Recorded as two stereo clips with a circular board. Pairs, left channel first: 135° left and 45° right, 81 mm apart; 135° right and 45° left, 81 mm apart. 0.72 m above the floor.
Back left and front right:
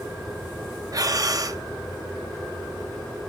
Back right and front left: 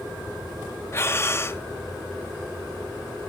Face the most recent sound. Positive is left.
turn(degrees=-80)